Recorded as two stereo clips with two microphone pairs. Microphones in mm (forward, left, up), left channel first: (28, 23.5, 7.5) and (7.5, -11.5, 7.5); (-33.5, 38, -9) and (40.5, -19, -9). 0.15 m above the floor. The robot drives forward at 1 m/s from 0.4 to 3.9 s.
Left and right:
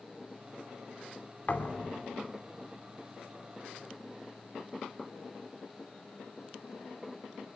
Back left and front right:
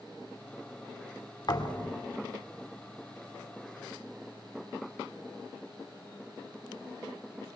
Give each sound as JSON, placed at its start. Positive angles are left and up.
{"t": 1.5, "sound": "a thud", "azimuth_deg": 105, "distance_m": 2.5}